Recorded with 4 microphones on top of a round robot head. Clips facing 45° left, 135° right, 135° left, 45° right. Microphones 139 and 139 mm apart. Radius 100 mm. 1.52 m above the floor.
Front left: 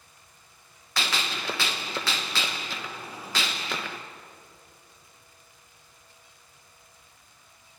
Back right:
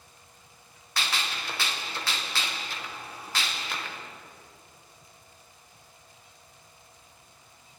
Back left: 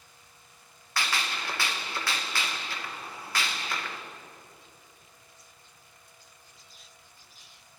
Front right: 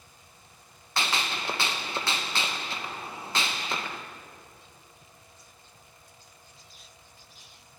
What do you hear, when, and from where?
1.0 s a gunshot: 25° left, 1.0 m